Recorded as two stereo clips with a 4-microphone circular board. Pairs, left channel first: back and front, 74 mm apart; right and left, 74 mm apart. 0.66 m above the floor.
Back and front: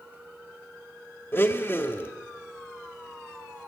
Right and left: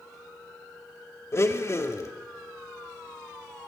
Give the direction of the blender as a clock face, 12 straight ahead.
4 o'clock.